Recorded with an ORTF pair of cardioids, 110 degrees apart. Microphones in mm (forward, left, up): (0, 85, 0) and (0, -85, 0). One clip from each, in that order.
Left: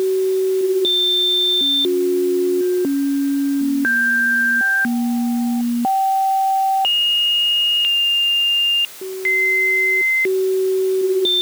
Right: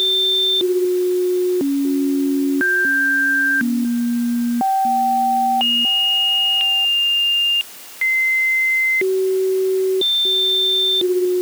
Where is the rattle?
No rattle in this recording.